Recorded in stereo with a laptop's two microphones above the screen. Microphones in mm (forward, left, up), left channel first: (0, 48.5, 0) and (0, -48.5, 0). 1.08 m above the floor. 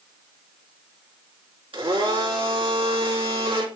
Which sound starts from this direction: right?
A blender, at 1.7 s.